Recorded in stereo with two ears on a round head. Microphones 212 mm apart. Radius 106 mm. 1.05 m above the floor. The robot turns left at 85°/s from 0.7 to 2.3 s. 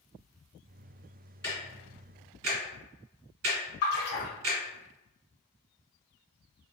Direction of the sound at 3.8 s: 65° left (ahead or behind).